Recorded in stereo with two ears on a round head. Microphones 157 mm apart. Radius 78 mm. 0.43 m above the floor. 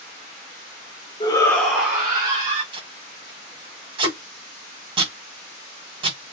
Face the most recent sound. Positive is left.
turn(degrees=-30)  # may be behind; listen again after turning